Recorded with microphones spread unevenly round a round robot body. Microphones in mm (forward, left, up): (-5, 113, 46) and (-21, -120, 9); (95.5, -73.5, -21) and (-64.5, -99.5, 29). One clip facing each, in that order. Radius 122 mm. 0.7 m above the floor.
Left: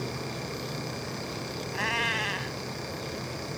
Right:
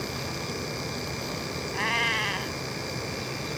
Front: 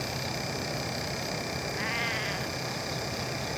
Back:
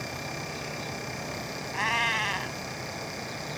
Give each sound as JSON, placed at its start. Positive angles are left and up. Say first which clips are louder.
{"t": 1.7, "sound": "a cat meowing", "louder": "right 1 dB, back 2 dB", "azimuth_deg": 175}